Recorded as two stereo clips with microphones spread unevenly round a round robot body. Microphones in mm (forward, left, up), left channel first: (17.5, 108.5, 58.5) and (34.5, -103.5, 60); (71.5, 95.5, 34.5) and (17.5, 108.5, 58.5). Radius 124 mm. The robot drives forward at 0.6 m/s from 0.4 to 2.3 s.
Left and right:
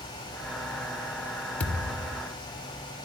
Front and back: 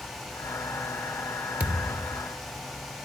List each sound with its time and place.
1.6 s a thud: straight behind, 1.8 m